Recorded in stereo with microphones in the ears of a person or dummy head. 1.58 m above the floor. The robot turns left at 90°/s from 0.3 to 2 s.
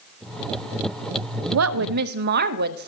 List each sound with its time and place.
1.5 s a woman speaking: 85° right, 0.5 m; by 2.9 s 130° right, 0.5 m